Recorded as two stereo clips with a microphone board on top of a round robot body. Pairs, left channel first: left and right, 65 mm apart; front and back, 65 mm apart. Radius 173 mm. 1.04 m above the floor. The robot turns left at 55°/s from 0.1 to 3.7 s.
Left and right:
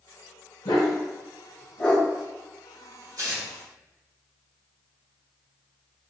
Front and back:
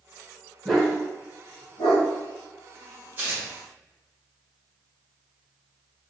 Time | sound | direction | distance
0.7 | a dog barking | 80° left | 1.6 m
3.2 | tearing paper | 120° right | 3.5 m